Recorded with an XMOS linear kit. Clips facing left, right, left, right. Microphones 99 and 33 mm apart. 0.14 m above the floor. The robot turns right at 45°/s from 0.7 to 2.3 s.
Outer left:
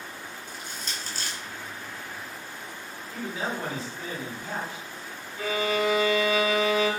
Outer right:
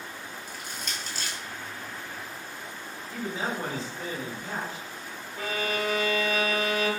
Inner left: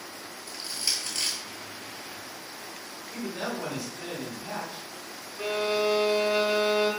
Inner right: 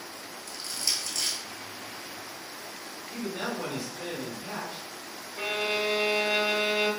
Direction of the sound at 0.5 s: 25° left (ahead or behind).